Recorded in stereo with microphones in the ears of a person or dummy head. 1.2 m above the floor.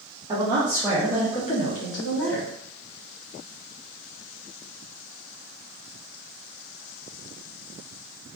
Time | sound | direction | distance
0.3 | a woman speaking | 20° right (ahead or behind) | 0.8 m